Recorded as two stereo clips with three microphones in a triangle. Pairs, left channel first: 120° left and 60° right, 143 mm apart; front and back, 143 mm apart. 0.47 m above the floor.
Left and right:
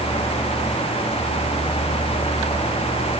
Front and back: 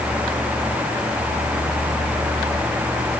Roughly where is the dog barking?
I don't hear a dog barking.